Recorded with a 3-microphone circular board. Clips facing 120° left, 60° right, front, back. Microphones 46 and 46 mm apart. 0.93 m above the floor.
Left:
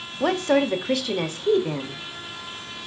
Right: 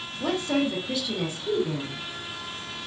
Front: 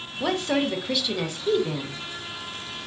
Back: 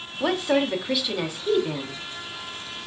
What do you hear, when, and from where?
0.2 s a woman speaking: 100° left, 0.8 m